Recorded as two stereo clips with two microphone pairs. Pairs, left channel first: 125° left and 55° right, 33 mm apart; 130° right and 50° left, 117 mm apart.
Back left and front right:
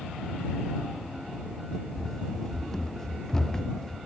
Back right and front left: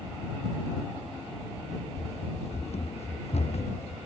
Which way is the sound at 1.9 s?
155° right.